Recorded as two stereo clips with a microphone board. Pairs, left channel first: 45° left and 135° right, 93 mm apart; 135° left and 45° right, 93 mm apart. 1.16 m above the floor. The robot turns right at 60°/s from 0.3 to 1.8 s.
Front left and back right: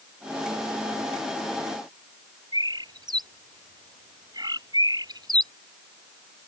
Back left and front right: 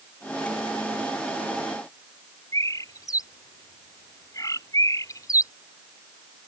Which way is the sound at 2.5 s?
175° right.